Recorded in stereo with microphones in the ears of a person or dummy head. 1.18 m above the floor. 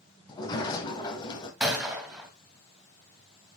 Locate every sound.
0.3 s a sliding door: 25° left (ahead or behind), 2.5 m
1.6 s a gunshot: 10° right (ahead or behind), 1.9 m